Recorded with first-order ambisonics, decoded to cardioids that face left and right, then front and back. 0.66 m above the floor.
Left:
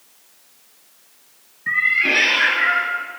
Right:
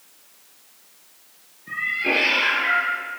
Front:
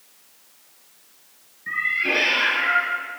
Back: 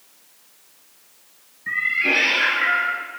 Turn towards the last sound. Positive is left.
turn(degrees=95)